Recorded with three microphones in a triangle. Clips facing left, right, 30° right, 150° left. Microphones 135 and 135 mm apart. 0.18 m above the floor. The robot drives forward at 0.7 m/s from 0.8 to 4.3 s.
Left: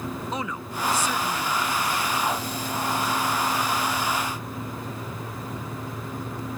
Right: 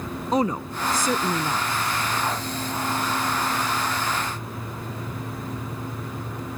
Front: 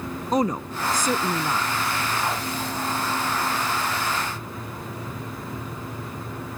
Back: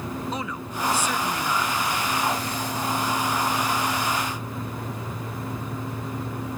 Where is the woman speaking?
55° right; by 1.7 s 85° right.